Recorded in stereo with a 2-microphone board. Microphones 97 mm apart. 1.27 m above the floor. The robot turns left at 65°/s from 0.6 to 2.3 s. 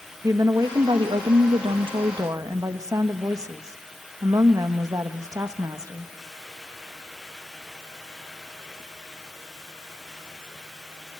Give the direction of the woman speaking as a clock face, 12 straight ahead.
1 o'clock.